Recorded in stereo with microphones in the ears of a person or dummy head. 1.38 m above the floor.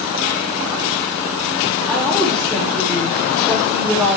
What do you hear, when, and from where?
1.9 s a woman speaking: 5° left (ahead or behind), 4 m